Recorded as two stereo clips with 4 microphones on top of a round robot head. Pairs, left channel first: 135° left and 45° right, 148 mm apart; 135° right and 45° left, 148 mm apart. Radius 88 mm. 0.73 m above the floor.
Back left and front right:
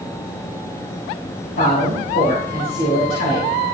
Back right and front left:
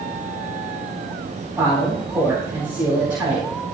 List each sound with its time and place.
1.6 s a woman speaking: 125° left, 4.5 m